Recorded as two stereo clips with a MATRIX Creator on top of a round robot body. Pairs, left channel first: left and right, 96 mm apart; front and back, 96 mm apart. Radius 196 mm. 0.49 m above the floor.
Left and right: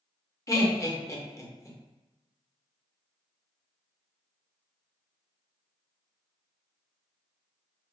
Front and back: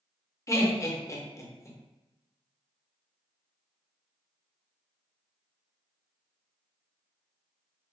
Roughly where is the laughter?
Ahead left.